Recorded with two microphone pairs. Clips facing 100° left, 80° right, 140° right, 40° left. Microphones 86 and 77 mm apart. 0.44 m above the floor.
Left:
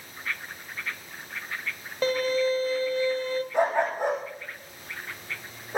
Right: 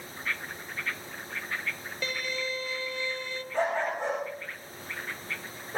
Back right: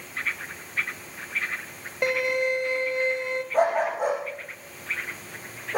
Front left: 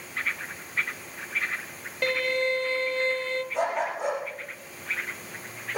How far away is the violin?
About 0.9 m.